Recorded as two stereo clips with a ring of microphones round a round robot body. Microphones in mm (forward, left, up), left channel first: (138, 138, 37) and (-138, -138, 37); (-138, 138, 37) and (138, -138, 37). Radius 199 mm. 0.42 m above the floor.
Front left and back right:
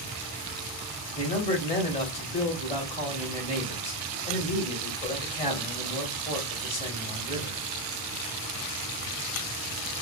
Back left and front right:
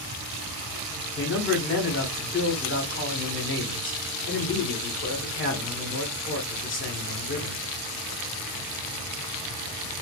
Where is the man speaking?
105° left, 1.4 m.